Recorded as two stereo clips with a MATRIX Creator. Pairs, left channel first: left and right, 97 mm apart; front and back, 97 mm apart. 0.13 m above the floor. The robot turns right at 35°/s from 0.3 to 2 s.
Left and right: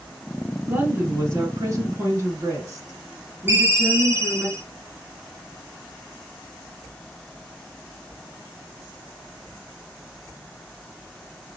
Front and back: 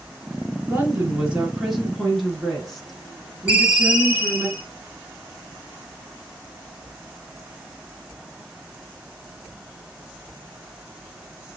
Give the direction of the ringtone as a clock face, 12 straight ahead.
4 o'clock.